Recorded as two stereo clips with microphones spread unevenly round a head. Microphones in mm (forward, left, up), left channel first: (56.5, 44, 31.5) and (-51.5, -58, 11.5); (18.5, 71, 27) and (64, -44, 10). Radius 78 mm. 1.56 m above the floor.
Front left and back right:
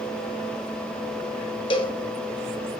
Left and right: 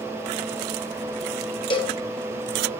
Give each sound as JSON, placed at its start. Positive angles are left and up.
{"t": 1.7, "sound": "a cowbell", "azimuth_deg": 85, "distance_m": 1.1}